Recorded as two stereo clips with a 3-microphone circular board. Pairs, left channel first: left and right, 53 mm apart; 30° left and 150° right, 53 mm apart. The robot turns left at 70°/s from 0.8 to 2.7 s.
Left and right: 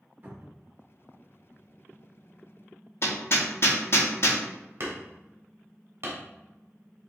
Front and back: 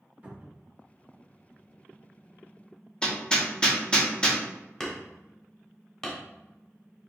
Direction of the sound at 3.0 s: 100° left.